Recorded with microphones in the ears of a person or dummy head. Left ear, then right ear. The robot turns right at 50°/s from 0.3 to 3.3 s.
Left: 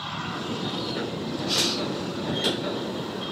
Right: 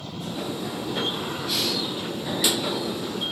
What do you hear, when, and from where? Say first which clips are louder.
1.4 s breathing: left 1 dB; 35° right (ahead or behind), 5 m; by 1.8 s 15° right (ahead or behind), 5 m